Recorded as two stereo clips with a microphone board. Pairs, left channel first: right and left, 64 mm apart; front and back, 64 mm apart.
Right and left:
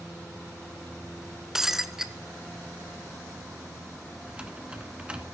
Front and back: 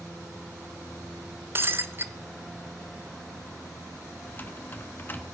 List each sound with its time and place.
1.6 s breaking glass: 165° left, 1.0 m
4.3 s typing on a keyboard: 30° left, 1.6 m